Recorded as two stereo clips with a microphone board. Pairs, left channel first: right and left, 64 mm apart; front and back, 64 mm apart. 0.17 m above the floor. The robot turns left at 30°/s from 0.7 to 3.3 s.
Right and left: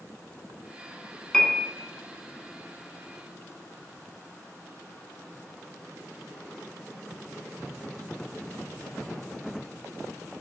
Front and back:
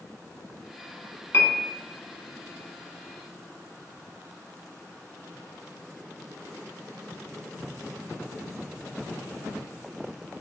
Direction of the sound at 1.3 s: 20° right.